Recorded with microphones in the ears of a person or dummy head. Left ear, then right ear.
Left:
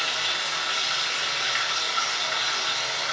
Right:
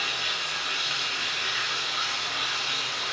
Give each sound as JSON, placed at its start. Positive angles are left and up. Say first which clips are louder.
{"t": 0.0, "sound": "running water", "louder": "left 2 dB", "side_deg": 25, "distance_m": 0.9}